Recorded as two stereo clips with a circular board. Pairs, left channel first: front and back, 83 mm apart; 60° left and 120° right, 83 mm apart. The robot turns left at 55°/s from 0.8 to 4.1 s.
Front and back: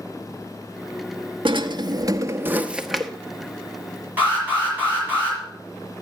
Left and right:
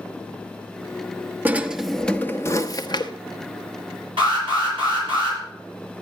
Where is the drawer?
170° left, 0.9 m; by 3.1 s 80° left, 0.9 m.